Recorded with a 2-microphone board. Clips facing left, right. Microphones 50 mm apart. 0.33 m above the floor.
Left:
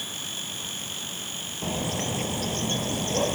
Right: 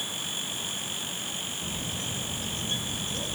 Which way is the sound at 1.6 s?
70° left (ahead or behind).